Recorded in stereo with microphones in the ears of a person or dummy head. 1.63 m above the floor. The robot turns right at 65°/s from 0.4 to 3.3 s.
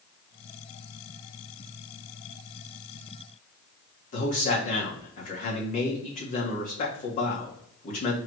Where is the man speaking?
40° left (ahead or behind), 1.6 m.